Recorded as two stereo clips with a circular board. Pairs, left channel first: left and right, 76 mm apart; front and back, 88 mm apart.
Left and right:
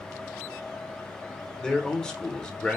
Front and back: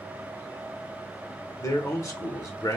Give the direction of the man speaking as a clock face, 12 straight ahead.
12 o'clock.